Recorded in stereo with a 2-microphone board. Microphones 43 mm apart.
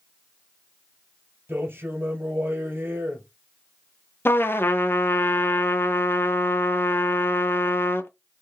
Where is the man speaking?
55° right (ahead or behind), 2.5 m.